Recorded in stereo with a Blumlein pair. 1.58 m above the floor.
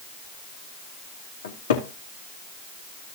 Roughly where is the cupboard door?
Ahead left.